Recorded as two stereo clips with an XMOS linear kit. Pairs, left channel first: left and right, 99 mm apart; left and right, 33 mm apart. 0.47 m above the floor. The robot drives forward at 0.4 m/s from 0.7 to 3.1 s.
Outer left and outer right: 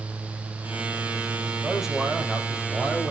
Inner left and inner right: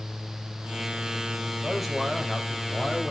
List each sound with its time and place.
1.6 s a man speaking: 5° right (ahead or behind), 2 m